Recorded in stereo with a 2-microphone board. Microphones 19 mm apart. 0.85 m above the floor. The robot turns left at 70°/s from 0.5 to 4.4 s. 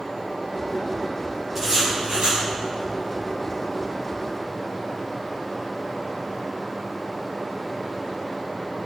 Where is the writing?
20° right, 6.5 m; by 2.4 s 80° right, 6.5 m.